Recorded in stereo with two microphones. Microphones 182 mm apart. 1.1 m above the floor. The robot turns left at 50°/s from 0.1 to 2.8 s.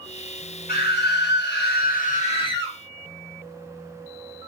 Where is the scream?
120° left, 1.1 m; by 2.8 s 15° left, 1.1 m.